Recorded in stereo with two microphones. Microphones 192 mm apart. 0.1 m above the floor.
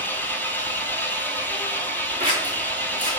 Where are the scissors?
30° right (ahead or behind), 3 m.